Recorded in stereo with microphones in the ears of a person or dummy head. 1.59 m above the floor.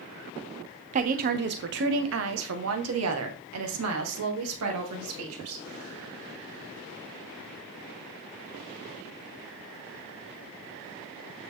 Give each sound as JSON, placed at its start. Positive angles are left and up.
{"t": 0.9, "sound": "a woman speaking", "side_deg": -35, "distance_m": 1.0}